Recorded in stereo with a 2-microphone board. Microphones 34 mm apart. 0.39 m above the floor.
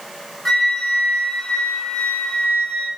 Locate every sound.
0.5 s a flute: 15° left (ahead or behind), 0.9 m